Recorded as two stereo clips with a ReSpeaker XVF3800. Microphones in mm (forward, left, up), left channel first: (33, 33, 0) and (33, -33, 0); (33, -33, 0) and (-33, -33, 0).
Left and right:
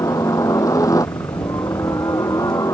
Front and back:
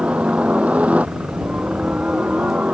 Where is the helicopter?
110° left.